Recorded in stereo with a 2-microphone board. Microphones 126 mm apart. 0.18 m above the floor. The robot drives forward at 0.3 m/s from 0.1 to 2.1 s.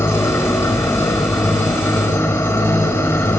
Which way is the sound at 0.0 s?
15° left (ahead or behind).